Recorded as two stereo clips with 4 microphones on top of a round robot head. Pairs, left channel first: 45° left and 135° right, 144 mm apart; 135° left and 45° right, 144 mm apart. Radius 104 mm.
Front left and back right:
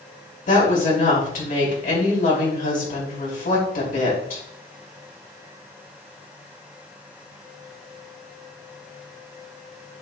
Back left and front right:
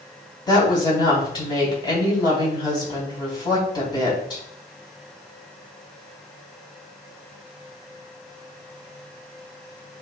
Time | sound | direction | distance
0.5 | a woman speaking | 70° left | 4 m